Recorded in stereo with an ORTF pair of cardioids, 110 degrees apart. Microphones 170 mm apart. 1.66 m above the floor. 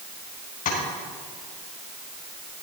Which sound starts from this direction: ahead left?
Tapping, at 0.7 s.